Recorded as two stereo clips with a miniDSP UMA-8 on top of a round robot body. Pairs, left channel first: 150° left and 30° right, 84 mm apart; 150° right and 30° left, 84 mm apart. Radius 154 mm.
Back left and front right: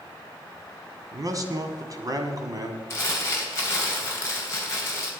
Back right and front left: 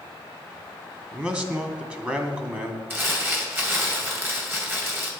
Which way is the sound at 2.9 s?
95° left.